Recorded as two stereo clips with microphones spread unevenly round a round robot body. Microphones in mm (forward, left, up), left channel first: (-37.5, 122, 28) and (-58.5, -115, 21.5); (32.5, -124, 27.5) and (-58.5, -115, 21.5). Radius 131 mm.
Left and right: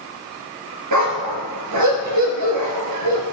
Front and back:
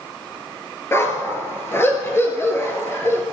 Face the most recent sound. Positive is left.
turn(degrees=-70)